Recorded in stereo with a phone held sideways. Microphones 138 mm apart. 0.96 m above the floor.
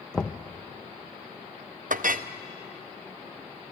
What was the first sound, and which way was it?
Knocking, 5° left (ahead or behind).